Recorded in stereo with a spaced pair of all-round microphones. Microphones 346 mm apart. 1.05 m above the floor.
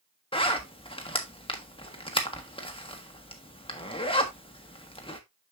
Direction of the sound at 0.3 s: 15° left (ahead or behind).